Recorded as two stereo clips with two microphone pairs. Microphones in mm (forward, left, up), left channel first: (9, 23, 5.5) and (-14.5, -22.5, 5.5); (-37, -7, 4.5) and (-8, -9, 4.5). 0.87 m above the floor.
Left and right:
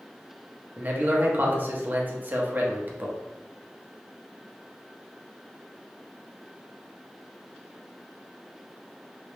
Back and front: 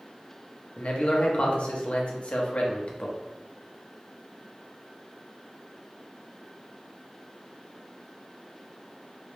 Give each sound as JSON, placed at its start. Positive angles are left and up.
{"t": 0.8, "sound": "a man speaking", "azimuth_deg": -160, "distance_m": 0.9}